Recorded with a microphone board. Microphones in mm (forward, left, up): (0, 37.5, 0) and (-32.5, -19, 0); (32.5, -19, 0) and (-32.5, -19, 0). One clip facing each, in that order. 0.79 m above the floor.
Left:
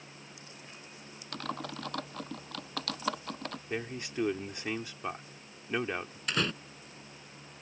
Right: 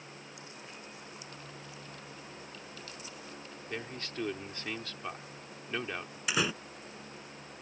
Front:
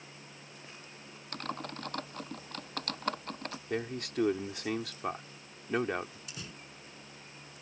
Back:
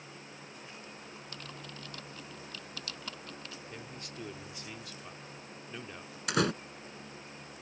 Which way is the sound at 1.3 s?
40° left.